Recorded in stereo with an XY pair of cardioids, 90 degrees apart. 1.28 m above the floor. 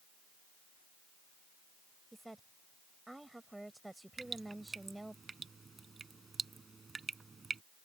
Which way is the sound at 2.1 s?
10° right.